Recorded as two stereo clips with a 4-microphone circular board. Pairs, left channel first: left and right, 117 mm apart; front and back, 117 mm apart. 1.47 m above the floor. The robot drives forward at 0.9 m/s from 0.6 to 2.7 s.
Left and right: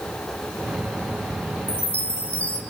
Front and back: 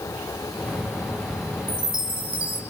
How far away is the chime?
About 1.5 m.